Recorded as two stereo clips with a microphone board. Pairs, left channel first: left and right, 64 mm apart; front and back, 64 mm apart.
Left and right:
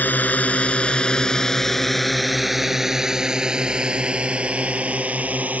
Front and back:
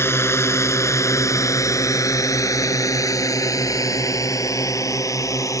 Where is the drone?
35° left; by 5.6 s 25° right.